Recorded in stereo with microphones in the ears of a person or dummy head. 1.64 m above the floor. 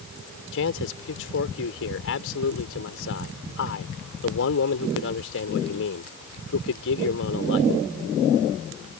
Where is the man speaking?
70° left (ahead or behind).